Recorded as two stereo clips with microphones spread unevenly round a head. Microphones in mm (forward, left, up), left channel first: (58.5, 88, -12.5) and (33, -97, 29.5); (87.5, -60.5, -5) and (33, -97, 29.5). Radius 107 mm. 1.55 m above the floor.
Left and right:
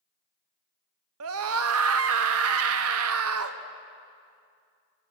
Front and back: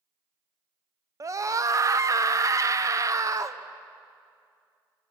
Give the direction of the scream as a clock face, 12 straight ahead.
3 o'clock.